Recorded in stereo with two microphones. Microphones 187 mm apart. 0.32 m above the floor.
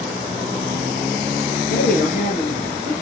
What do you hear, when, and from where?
1.7 s a woman speaking: 50° left (ahead or behind), 5 m